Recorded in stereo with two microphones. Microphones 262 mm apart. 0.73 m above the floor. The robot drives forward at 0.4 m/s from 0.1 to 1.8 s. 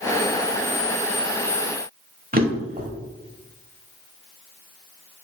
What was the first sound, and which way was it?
A drawer, 35° right (ahead or behind).